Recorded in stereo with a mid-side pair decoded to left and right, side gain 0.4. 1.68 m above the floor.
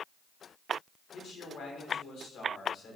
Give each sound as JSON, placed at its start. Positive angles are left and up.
{"t": 1.1, "sound": "a man speaking", "azimuth_deg": 70, "distance_m": 2.5}